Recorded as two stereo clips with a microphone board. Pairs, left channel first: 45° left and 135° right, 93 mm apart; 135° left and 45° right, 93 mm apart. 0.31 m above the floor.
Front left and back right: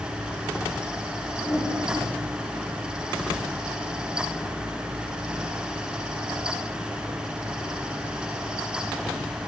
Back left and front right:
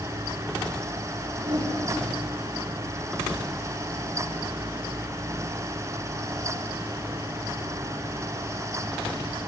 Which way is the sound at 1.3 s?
10° right.